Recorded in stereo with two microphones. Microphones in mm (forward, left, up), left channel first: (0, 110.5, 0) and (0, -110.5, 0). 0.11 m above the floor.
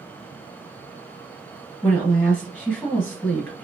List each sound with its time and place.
1.8 s a woman speaking: 10° left (ahead or behind), 1.5 m